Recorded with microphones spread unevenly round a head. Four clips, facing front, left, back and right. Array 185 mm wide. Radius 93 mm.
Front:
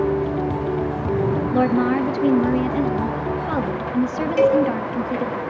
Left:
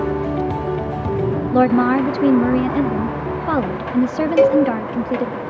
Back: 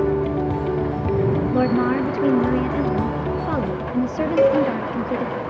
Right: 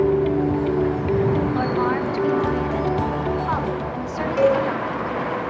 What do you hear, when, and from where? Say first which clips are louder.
1.5 s a woman speaking: left 6 dB, front 2 dB; 115° left, 0.9 m
4.4 s a cowbell: left 4 dB, front 1 dB; 120° left, 4 m